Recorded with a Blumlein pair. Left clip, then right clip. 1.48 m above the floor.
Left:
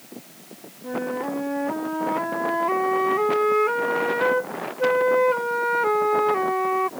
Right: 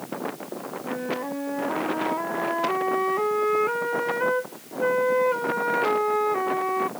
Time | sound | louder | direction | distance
0.8 | a flute | left 3 dB | 10° left | ?